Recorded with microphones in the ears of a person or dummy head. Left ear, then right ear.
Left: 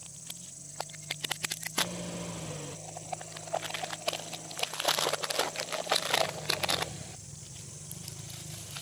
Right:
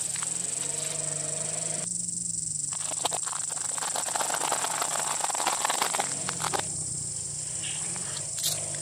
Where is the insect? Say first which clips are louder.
Right 12 dB; 45° right (ahead or behind), 1.5 m.